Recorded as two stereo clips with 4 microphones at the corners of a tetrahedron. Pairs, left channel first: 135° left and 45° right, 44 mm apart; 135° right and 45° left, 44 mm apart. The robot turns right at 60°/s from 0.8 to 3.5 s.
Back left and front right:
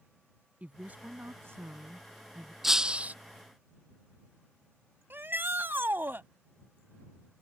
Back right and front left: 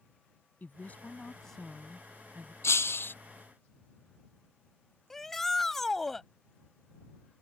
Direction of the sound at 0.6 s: 100° right.